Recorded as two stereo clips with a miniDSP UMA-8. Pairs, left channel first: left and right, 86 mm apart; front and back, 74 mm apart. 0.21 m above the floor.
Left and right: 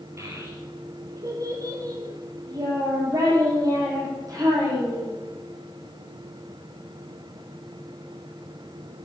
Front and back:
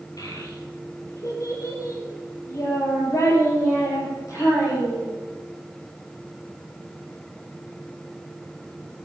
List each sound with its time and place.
0.2 s a child speaking: 35° right, 3.5 m; by 5.1 s 45° right, 7.5 m